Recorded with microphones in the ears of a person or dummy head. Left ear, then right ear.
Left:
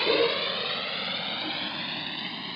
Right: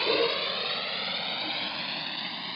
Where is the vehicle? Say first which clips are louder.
Left 2 dB; 15° right (ahead or behind); by 2.6 s 20° right (ahead or behind).